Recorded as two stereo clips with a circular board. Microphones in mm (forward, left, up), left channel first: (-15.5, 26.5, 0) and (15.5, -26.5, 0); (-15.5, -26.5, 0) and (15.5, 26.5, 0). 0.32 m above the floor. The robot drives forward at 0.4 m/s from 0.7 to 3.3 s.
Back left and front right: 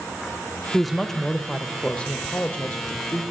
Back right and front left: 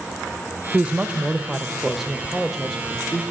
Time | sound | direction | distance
0.7 | a woman speaking | 30° left | 0.9 m